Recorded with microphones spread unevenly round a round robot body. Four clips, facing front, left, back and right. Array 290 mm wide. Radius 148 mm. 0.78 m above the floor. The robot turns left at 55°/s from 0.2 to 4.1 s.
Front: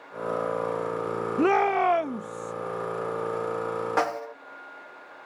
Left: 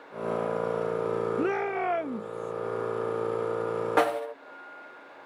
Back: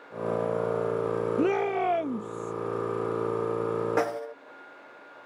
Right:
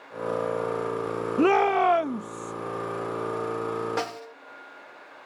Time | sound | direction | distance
1.4 | a shout | 115° right | ?
4.0 | a snare drum | 140° left | ?